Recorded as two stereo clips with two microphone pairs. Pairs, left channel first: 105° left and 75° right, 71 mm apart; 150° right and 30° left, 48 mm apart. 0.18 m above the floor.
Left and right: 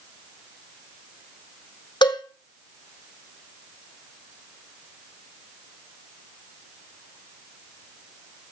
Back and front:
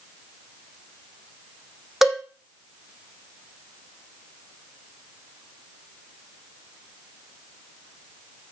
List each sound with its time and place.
2.0 s a cowbell: 110° left, 1.8 m